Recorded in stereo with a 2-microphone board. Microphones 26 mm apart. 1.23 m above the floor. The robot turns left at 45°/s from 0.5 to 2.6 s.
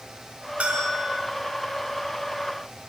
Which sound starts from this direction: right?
A bell, at 0.6 s.